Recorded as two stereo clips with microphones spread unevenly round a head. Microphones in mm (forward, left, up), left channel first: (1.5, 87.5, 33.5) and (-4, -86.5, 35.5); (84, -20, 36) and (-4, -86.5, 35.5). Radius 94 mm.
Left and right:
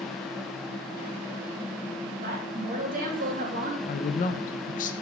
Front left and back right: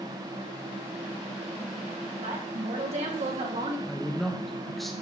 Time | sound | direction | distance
2.2 | a woman speaking | 130° right | 2.5 m
3.9 | a woman speaking | 125° left | 0.8 m